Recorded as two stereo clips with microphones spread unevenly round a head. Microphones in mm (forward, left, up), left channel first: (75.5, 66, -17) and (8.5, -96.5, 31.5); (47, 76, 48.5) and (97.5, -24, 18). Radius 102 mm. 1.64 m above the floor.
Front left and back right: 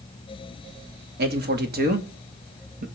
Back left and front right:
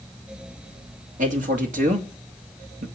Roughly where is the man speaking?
Right.